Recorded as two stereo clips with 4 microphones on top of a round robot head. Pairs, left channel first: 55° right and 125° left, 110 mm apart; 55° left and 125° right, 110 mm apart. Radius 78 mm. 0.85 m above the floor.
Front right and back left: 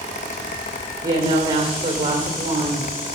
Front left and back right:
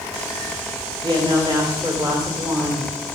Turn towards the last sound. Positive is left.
turn(degrees=180)